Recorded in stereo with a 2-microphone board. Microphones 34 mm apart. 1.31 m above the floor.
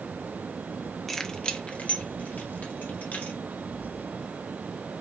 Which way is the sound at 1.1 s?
5° left (ahead or behind).